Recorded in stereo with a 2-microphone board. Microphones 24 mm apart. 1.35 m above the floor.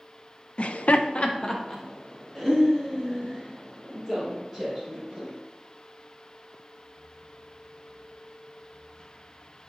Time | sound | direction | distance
0.6 | laughter | 55° left (ahead or behind) | 0.7 m